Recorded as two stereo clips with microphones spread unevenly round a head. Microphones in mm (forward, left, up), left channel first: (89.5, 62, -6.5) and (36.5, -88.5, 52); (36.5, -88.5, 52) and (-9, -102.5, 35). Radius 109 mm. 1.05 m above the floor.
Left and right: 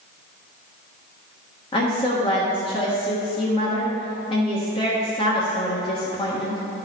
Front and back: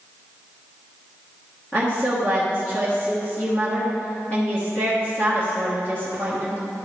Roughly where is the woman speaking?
Left.